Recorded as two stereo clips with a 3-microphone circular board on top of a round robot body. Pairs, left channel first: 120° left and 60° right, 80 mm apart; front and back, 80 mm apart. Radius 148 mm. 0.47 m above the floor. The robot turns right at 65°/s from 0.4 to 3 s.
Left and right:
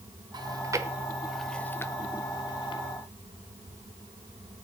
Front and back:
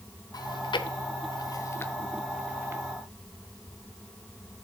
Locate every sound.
0.3 s chewing: 35° right, 1.0 m; by 2.8 s 125° left, 1.0 m